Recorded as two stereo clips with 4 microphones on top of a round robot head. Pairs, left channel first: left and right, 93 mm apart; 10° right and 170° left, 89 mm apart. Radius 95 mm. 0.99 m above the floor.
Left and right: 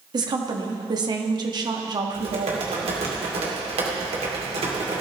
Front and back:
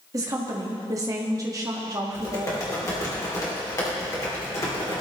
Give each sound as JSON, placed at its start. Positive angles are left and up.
{"t": 0.1, "sound": "a woman speaking", "azimuth_deg": -130, "distance_m": 1.6}
{"t": 2.1, "sound": "typing on a keyboard", "azimuth_deg": -70, "distance_m": 2.5}